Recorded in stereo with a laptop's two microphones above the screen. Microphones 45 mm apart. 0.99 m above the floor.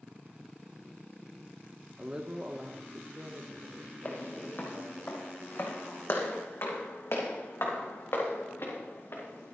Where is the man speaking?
20° right (ahead or behind), 0.9 m; by 5.0 s 70° right (ahead or behind), 1.9 m.